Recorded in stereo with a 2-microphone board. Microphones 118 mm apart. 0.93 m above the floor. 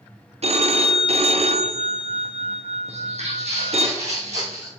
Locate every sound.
0.4 s a phone ringing: 60° right (ahead or behind), 0.7 m
2.9 s footsteps: 60° right (ahead or behind), 2 m